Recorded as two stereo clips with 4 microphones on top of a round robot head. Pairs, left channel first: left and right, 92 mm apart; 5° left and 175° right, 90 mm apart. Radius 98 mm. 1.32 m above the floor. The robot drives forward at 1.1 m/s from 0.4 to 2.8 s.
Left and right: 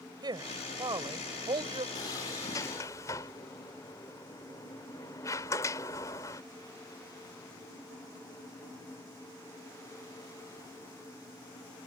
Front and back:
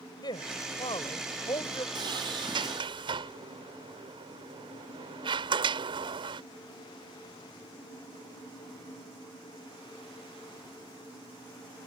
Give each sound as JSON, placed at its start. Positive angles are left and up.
{"t": 0.2, "sound": "a woman speaking", "azimuth_deg": -45}
{"t": 1.9, "sound": "a sliding door", "azimuth_deg": 150}